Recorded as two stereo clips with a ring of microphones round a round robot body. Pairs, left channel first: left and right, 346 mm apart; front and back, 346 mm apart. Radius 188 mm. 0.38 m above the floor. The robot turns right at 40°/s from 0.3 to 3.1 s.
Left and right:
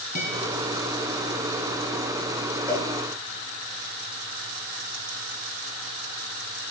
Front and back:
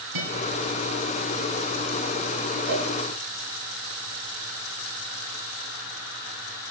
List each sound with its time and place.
0.1 s a guitar: 155° left, 3 m; by 0.4 s 160° left, 3 m
2.7 s a cowbell: 170° right, 6.5 m; by 2.9 s 165° right, 6.5 m